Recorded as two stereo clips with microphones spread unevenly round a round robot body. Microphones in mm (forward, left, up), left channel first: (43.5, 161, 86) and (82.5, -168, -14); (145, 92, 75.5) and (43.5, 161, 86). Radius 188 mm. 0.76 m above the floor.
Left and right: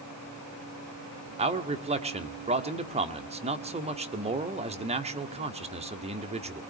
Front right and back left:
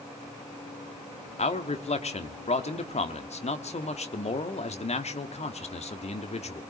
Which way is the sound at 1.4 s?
20° right.